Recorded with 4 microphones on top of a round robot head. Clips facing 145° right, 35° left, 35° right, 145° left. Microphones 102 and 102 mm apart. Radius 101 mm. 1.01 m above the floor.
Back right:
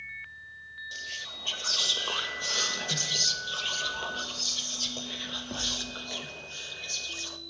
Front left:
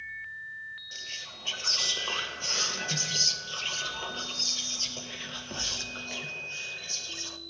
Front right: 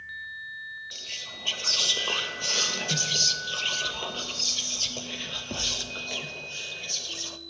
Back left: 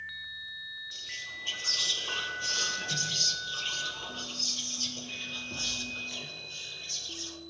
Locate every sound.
0.9 s whispering: 65° right, 0.9 m